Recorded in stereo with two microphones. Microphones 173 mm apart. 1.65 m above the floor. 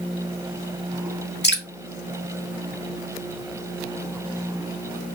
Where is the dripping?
80° left, 1.1 m.